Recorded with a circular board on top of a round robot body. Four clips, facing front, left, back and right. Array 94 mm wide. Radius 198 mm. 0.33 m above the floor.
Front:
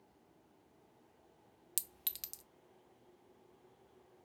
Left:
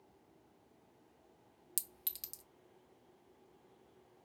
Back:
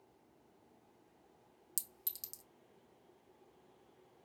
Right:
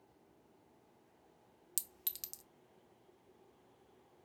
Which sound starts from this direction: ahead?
A clink, at 1.8 s.